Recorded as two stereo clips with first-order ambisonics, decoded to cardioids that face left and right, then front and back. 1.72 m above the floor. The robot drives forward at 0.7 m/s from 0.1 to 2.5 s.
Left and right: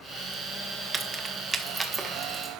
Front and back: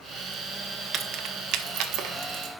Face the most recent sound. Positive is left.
turn(degrees=-170)